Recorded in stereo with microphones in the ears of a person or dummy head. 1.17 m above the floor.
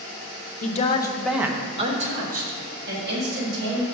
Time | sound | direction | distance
0.6 | a woman speaking | 45° left (ahead or behind) | 0.8 m